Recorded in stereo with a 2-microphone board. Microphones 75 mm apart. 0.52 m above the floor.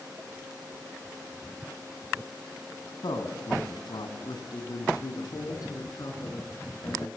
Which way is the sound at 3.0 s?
75° left (ahead or behind).